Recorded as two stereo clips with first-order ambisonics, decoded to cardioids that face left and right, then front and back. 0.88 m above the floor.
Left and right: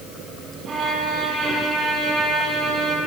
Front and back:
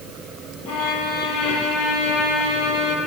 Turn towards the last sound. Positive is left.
turn(degrees=-25)